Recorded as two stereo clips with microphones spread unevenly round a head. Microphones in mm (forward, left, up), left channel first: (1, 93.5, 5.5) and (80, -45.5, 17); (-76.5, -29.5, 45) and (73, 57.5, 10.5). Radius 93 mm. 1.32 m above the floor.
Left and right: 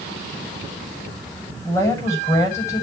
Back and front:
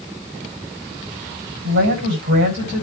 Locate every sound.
1.6 s a woman speaking: 50° left, 9 m